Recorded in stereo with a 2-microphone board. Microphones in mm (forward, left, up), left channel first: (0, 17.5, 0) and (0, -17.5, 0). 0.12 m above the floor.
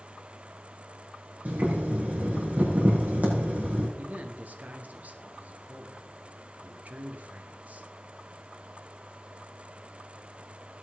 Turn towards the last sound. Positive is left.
turn(degrees=-45)  # may be behind; listen again after turning